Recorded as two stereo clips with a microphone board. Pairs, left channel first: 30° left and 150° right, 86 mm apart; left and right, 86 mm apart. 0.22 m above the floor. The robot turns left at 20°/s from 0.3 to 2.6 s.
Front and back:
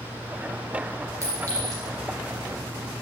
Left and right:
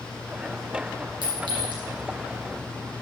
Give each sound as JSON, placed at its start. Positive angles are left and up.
{"t": 1.2, "sound": "a clink", "azimuth_deg": -95, "distance_m": 3.0}